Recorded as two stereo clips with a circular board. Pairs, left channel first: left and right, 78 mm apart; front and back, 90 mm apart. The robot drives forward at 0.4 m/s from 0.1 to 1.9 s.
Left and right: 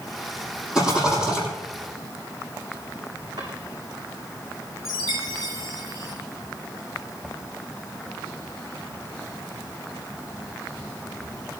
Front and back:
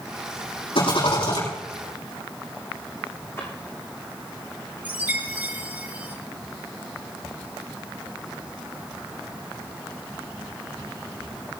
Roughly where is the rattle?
Ahead.